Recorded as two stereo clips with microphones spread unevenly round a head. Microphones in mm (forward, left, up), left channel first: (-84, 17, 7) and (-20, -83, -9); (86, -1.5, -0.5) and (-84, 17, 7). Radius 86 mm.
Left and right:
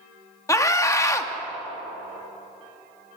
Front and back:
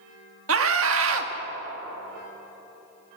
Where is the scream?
170° right, 2 m.